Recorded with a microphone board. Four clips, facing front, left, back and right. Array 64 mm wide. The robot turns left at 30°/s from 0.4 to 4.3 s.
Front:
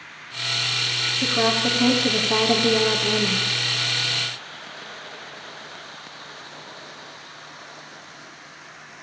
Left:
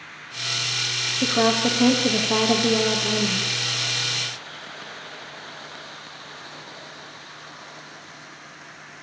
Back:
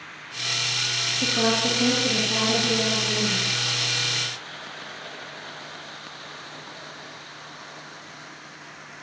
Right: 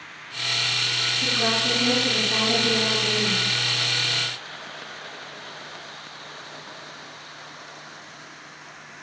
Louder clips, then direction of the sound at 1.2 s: Left 7 dB, front 1 dB; 90° left.